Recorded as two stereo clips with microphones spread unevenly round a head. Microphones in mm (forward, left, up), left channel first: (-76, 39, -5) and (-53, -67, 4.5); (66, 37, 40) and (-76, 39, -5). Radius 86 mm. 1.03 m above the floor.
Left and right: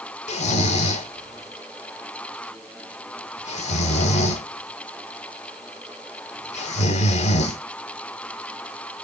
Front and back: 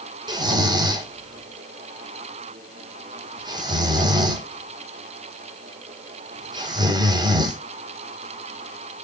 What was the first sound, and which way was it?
Snoring, 110° left.